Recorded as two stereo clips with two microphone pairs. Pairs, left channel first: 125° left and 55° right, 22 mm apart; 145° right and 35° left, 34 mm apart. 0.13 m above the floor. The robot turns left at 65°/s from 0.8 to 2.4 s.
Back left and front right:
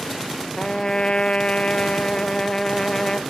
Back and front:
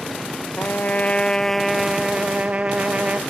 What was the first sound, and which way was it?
A trumpet, 175° right.